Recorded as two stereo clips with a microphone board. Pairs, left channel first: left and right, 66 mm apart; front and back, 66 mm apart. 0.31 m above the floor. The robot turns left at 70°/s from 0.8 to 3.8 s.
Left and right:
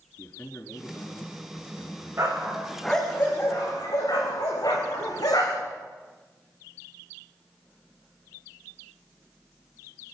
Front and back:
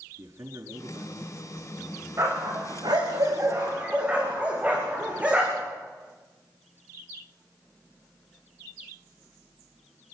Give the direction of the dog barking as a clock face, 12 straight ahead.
5 o'clock.